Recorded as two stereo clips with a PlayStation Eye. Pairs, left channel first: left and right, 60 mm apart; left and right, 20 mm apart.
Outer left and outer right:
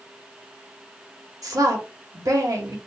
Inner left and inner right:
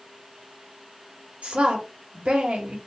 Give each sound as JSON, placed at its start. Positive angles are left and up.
{"t": 1.4, "sound": "a woman speaking", "side_deg": -70, "distance_m": 1.3}